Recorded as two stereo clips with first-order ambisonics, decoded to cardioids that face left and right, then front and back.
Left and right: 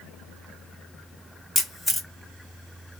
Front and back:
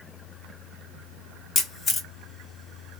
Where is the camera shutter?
5° right, 1.1 m.